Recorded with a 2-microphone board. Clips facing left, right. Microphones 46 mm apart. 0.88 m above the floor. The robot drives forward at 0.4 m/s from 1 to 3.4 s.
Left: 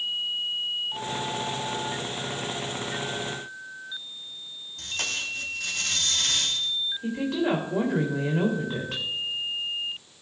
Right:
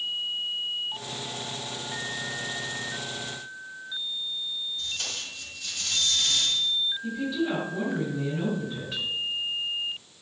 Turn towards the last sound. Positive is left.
turn(degrees=70)  # may be behind; listen again after turning